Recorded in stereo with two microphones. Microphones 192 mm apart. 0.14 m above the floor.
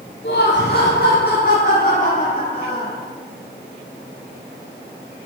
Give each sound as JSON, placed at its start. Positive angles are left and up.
{"t": 0.2, "sound": "laughter", "side_deg": 60, "distance_m": 2.5}